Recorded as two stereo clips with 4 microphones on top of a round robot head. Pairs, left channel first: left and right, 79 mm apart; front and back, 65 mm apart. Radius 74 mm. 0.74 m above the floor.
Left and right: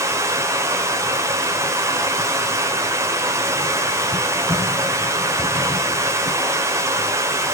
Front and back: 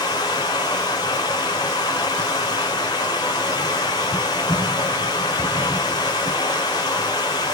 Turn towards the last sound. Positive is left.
turn(degrees=-40)